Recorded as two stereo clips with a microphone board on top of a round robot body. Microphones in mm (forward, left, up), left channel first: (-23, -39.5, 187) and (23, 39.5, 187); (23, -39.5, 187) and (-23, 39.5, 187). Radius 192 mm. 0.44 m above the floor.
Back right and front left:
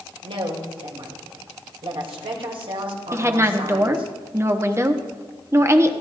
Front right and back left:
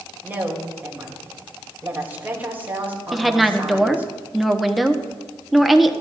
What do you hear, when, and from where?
0.2 s a woman speaking: 50° left, 3 m
3.1 s a woman speaking: 30° left, 1.3 m